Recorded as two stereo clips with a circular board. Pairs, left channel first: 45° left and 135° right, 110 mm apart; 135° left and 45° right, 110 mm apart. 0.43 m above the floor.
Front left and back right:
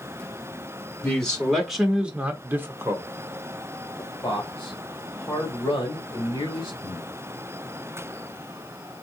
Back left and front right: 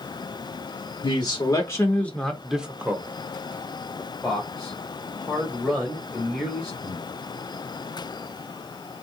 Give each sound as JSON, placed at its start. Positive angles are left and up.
{"t": 1.0, "sound": "a man speaking", "azimuth_deg": 120, "distance_m": 1.0}
{"t": 4.0, "sound": "a man speaking", "azimuth_deg": 35, "distance_m": 1.4}
{"t": 6.8, "sound": "breathing", "azimuth_deg": 10, "distance_m": 1.3}